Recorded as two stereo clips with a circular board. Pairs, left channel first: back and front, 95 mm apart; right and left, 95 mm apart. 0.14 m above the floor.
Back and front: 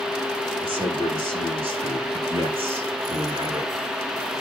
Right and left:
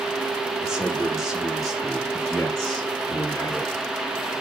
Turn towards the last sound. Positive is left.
turn(degrees=-10)